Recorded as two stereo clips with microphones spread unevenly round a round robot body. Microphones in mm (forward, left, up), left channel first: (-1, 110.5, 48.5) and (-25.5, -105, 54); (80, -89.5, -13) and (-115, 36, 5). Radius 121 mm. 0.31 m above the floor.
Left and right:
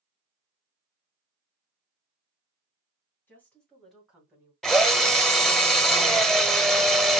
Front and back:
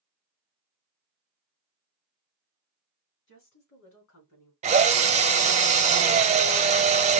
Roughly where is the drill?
Behind.